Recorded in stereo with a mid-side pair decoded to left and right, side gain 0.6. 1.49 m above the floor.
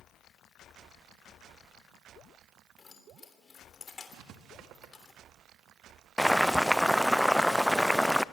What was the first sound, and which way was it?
Keys jangling, 35° left.